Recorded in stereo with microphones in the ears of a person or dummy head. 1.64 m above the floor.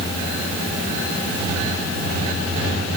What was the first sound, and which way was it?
Only background noise.